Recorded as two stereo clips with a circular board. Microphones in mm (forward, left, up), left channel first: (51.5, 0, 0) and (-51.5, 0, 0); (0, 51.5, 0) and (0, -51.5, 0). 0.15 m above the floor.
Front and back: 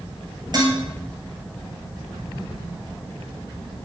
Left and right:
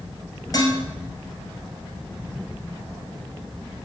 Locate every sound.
0.5 s dishes clattering: 140° left, 2 m